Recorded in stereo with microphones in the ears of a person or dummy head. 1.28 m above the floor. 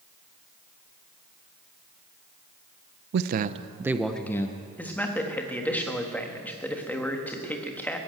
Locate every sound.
3.1 s a man speaking: 60° right (ahead or behind), 0.7 m; by 4.7 s 20° left (ahead or behind), 1.0 m
4.8 s a man speaking: 10° left (ahead or behind), 1.4 m